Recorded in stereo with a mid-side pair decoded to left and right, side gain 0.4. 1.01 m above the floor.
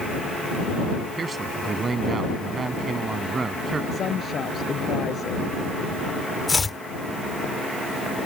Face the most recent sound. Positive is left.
turn(degrees=30)